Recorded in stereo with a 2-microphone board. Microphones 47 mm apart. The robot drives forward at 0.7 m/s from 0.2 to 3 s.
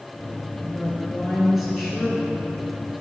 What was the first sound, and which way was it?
A woman speaking, 5° right (ahead or behind).